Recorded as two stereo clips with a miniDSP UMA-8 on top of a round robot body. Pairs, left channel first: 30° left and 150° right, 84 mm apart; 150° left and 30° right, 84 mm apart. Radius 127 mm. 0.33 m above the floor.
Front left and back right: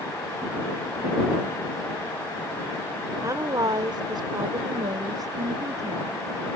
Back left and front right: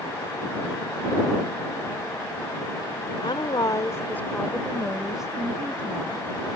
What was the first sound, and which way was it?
A woman speaking, 160° left.